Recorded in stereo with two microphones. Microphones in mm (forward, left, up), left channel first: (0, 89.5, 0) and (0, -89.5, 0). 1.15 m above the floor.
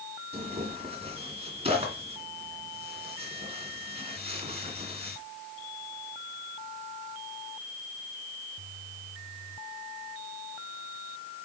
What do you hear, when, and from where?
0.3 s tearing paper: 35° right (ahead or behind), 2.5 m